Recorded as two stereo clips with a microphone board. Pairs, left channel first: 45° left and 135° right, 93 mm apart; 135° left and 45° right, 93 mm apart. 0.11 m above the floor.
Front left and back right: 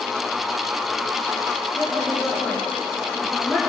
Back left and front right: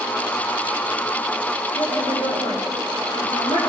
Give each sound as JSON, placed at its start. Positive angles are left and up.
{"t": 1.8, "sound": "a woman speaking", "azimuth_deg": 125, "distance_m": 8.5}